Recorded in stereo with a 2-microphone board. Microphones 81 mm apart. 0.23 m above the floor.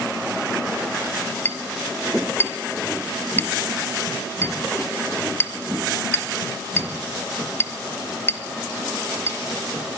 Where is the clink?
30° left (ahead or behind), 1.2 m.